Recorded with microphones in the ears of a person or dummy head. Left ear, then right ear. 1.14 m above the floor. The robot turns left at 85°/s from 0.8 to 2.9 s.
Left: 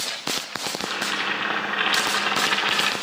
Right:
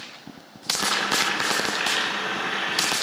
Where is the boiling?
150° right, 1.1 m; by 2.9 s 35° left, 1.1 m.